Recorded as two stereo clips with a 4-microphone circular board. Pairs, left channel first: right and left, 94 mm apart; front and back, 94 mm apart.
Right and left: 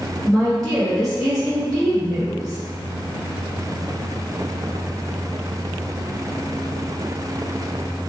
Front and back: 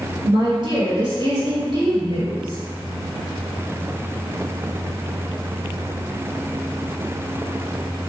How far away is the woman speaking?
About 1.8 m.